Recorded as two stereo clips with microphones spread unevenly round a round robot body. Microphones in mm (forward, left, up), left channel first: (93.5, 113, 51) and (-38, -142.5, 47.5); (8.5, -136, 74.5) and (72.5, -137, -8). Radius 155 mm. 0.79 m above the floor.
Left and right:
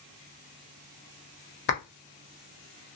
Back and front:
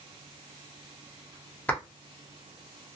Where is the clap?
30° left, 0.9 m.